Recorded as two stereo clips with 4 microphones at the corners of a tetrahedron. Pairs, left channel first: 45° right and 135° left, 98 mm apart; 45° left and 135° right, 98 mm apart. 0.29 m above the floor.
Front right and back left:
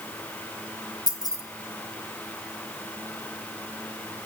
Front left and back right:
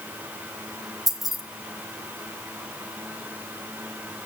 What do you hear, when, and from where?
1.1 s keys jangling: 50° right, 1.1 m